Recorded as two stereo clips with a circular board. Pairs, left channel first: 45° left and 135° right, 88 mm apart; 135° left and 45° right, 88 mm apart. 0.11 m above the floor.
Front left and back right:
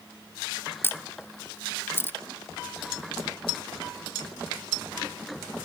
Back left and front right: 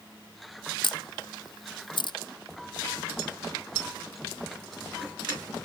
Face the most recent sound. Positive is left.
turn(degrees=110)